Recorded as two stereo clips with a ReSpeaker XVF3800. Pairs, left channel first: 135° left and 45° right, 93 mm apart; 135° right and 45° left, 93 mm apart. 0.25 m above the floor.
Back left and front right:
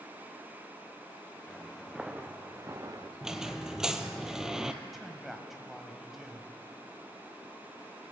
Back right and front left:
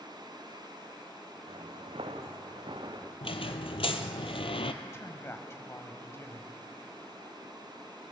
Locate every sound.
1.5 s footsteps: 55° left, 1.4 m; by 3.1 s straight ahead, 1.7 m
3.2 s a squeak: 130° right, 0.8 m
4.8 s a man speaking: 130° right, 1.3 m